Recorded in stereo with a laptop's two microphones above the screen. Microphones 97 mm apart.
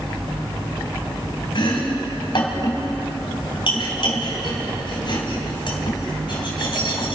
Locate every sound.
1.6 s chopping: 55° left (ahead or behind), 3.5 m